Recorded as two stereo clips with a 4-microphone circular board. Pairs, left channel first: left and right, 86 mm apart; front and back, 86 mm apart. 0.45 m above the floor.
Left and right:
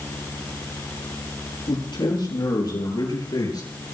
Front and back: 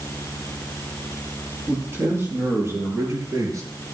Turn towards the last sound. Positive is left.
turn(degrees=130)